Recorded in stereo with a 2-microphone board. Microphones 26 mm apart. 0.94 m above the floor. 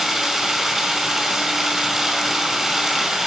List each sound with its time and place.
0.0 s running water: 10° right (ahead or behind), 5 m